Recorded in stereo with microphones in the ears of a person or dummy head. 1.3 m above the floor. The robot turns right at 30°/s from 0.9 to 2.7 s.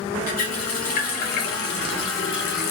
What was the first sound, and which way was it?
A running tap, 60° left.